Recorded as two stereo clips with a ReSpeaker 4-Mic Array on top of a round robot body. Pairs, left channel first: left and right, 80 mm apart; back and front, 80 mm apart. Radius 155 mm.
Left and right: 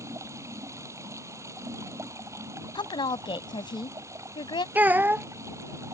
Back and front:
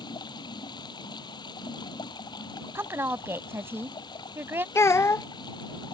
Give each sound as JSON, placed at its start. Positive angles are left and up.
{"t": 0.0, "sound": "running water", "azimuth_deg": -145}
{"t": 2.8, "sound": "a woman speaking", "azimuth_deg": 65}
{"t": 4.8, "sound": "a child speaking", "azimuth_deg": -150}